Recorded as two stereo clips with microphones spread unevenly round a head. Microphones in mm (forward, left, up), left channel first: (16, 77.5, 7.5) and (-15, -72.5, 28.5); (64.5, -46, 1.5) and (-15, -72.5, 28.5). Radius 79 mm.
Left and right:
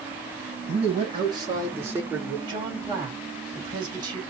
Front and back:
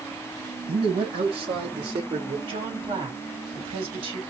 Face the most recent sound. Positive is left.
turn(degrees=-165)